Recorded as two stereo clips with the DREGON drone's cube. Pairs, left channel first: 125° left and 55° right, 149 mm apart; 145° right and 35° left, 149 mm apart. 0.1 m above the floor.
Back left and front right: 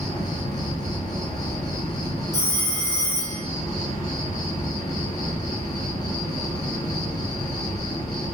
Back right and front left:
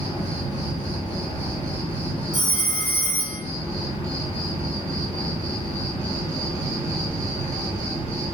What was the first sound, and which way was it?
An insect, 175° right.